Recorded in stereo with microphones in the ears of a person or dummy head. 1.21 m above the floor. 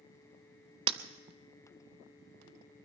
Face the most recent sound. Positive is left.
turn(degrees=-35)  # may be behind; listen again after turning